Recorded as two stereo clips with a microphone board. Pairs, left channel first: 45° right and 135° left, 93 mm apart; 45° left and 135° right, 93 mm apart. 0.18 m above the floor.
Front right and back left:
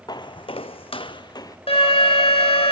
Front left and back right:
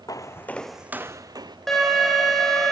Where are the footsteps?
5° right, 0.9 m; by 1.6 s 95° right, 1.0 m.